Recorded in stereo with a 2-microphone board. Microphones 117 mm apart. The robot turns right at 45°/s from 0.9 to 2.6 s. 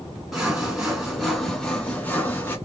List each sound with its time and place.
0.3 s sawing: 5° right (ahead or behind), 1.2 m; by 2.6 s 15° left (ahead or behind), 1.2 m